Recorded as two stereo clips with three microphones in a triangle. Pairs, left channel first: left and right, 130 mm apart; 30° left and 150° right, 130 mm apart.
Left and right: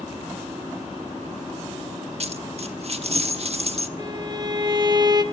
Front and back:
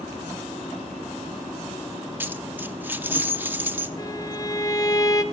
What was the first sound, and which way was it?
A dropped coin, 80° right.